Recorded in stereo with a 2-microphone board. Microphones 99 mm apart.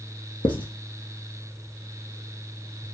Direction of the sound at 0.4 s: 55° left (ahead or behind).